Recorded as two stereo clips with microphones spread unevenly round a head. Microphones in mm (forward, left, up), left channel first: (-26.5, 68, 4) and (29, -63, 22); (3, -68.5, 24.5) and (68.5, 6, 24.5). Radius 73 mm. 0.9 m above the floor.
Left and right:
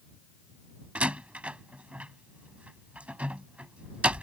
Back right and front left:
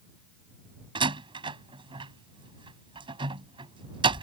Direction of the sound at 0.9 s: 15° left.